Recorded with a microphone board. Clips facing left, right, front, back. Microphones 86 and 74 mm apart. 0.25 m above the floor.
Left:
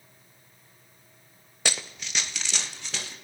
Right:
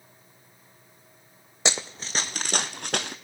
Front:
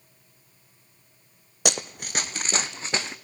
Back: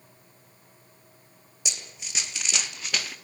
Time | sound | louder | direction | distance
1.6 | running footsteps | right 3 dB, front 12 dB | 20° right | 0.8 m